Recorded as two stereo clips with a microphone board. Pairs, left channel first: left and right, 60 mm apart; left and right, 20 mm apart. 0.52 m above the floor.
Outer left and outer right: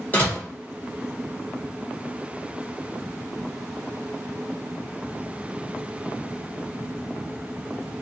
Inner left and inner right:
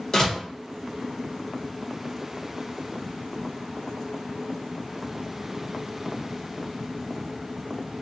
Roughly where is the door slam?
Left.